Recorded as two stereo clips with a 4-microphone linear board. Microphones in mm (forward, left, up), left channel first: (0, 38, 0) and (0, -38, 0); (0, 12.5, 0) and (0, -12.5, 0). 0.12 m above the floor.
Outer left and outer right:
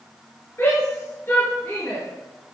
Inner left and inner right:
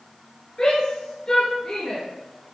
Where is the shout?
30° left (ahead or behind), 2 m.